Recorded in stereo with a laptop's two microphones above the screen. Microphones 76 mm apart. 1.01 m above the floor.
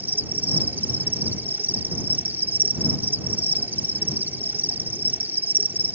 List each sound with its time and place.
0.0 s an insect: 25° right (ahead or behind)